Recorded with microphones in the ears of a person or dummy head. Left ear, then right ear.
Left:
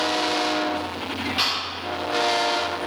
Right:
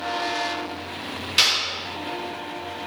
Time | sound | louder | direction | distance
1.4 | a clap | right 6 dB | 50° right (ahead or behind) | 7 m